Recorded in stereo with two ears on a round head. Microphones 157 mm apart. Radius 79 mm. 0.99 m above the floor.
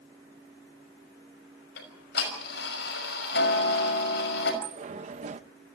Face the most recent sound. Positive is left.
turn(degrees=-40)  # may be behind; listen again after turning